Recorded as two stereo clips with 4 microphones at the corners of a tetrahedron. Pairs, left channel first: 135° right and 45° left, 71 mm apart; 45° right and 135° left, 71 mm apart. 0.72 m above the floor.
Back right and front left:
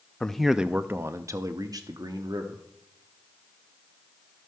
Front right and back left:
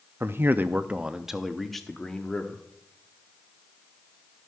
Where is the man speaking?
155° left, 0.5 m; by 2.6 s 35° left, 1.2 m.